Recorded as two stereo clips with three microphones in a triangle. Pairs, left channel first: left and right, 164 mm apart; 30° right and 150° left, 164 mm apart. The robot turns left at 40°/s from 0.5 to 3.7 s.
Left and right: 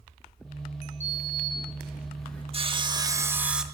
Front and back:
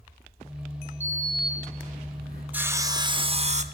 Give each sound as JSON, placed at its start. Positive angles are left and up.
{"t": 1.0, "sound": "a sliding door", "azimuth_deg": -135, "distance_m": 2.5}
{"t": 2.5, "sound": "sawing", "azimuth_deg": -130, "distance_m": 0.6}